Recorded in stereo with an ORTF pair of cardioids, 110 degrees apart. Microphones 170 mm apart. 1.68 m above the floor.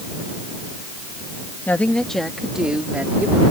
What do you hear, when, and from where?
1.7 s a woman speaking: 10° left; by 3.4 s 10° right